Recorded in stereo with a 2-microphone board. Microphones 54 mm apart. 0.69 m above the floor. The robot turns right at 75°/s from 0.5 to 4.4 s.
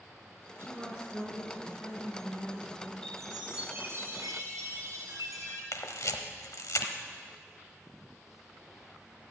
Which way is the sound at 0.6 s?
50° right.